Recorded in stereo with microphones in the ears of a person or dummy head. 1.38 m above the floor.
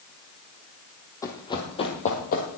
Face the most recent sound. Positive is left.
turn(degrees=45)  # may be behind; listen again after turning